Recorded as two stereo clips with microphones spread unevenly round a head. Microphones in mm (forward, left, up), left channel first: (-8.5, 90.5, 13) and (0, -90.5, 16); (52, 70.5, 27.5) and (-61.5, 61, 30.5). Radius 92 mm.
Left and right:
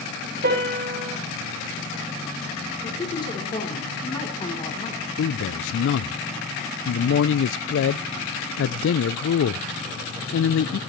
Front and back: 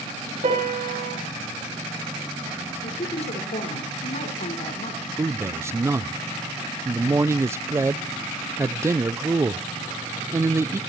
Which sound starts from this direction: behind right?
A piano, at 0.4 s.